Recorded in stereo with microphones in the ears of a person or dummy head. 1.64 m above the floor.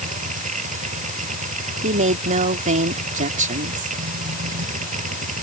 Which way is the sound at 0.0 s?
45° right (ahead or behind).